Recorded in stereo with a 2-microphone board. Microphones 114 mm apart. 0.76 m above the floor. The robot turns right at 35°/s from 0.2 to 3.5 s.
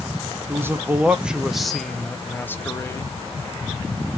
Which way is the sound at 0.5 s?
40° right.